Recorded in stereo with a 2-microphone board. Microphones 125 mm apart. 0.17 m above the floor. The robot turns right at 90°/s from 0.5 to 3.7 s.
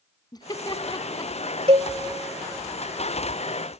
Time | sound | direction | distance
0.3 | laughter | 35° left (ahead or behind) | 1.2 m
1.7 | a cowbell | 55° right (ahead or behind) | 0.8 m